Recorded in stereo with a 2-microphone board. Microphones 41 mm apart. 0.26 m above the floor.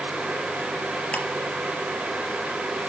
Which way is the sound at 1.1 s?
35° left (ahead or behind).